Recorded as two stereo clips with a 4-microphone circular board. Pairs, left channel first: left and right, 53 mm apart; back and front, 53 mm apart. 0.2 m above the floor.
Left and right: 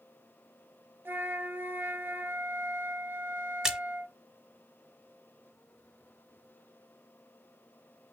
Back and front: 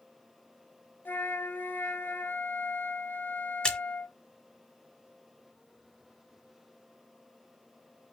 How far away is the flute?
About 0.9 m.